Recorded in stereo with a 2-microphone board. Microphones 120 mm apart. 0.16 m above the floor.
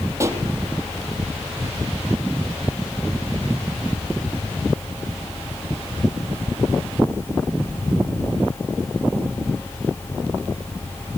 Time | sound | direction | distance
0.2 | a pop | 25° right (ahead or behind) | 4 m